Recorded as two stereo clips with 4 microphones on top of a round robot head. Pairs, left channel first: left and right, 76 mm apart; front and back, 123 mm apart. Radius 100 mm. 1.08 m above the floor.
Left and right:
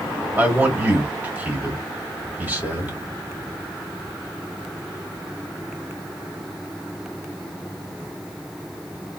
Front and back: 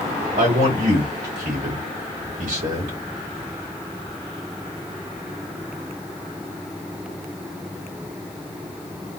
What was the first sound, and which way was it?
A man speaking, 160° right.